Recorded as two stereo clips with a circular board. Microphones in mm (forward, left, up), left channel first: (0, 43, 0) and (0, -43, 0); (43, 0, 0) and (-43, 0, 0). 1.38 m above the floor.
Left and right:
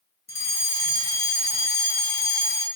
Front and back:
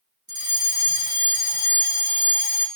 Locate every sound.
0.3 s a fire alarm: 145° left, 2 m